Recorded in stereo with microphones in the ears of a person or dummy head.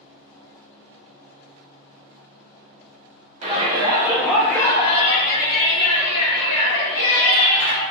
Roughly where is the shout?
Right.